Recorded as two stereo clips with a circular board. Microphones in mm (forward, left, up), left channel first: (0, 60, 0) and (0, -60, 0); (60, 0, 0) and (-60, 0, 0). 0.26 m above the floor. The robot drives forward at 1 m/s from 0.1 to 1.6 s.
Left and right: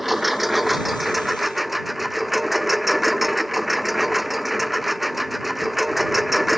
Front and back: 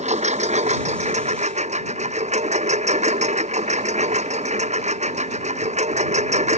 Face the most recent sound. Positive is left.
turn(degrees=180)